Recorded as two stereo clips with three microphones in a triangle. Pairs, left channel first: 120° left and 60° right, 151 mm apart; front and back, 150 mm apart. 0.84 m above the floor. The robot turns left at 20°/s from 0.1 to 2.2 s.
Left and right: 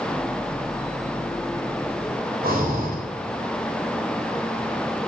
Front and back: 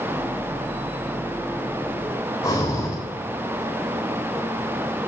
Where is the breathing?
70° right, 3 m.